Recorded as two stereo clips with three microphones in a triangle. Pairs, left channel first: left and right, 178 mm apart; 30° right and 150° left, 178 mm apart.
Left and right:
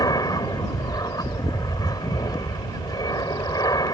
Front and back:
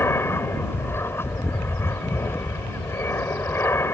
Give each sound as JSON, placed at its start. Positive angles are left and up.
{"t": 0.0, "sound": "an aircraft", "azimuth_deg": 35}